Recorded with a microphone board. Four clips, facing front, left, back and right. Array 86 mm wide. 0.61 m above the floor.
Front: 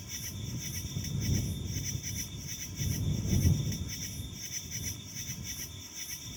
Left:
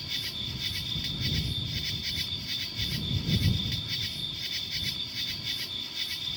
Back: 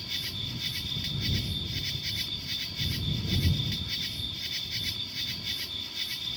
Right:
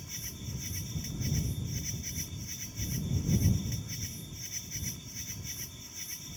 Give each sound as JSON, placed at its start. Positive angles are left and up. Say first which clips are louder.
{"t": 0.0, "sound": "an insect", "louder": "left 4 dB, back 4 dB", "azimuth_deg": 130}